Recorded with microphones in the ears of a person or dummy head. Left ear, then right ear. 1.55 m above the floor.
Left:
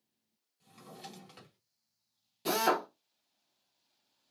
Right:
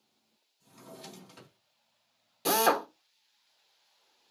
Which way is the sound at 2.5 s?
25° right (ahead or behind).